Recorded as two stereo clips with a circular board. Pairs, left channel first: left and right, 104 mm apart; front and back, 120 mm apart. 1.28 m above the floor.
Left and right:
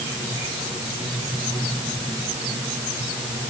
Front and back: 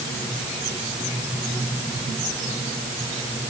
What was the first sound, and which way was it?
Only background noise.